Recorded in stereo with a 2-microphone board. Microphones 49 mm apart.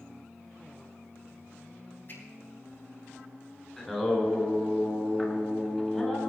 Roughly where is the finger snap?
Left.